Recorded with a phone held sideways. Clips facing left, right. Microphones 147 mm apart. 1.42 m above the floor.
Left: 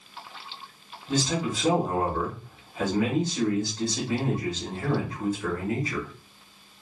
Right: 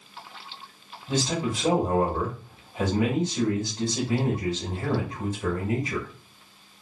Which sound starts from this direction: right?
A man speaking, at 1.1 s.